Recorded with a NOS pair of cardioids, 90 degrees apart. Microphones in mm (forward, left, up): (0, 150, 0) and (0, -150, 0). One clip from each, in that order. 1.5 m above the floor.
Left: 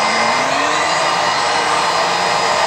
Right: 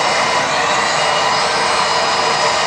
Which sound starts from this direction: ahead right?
A machine running, at 0.0 s.